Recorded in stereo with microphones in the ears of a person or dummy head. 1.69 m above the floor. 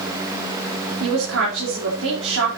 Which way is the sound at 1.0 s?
85° right.